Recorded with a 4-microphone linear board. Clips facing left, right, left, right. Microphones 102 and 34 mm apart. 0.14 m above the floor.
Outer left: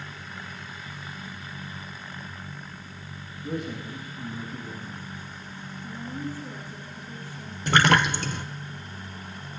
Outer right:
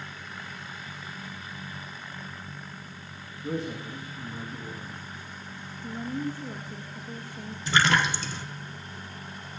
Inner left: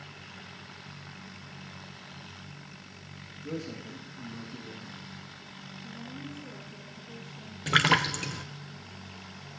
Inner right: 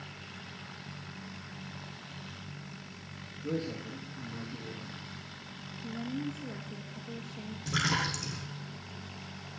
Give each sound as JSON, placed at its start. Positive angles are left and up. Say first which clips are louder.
{"t": 3.4, "sound": "a man speaking", "louder": "even, inner right 3 dB", "side_deg": -30, "distance_m": 7.5}
{"t": 5.8, "sound": "a woman speaking", "louder": "outer right 3 dB, inner right 7 dB", "side_deg": -55, "distance_m": 2.5}
{"t": 7.7, "sound": "a splash", "louder": "outer left 3 dB, inner left 7 dB", "side_deg": 55, "distance_m": 1.4}